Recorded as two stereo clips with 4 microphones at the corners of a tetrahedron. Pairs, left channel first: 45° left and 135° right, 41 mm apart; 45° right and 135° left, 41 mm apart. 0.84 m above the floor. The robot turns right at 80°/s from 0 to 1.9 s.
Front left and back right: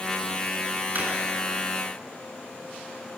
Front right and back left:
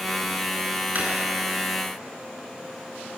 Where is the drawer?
175° right, 2.5 m; by 1.1 s 165° right, 2.5 m.